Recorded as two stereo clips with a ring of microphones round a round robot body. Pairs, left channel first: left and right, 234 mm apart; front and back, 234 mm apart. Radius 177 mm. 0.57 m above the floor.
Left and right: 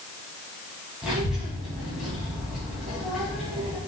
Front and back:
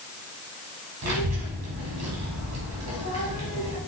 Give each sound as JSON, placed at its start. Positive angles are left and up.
{"t": 1.0, "sound": "a child speaking", "azimuth_deg": 180, "distance_m": 3.0}